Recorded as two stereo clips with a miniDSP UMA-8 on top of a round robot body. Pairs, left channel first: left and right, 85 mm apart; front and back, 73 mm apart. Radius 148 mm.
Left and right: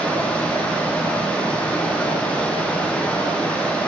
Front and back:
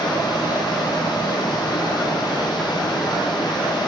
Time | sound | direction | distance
0.0 | running water | 15° left | 1.3 m